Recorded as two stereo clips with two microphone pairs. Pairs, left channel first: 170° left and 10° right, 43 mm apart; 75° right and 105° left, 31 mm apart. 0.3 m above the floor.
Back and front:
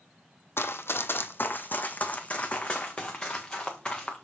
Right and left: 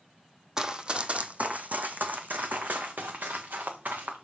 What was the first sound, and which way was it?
Running footsteps, 175° left.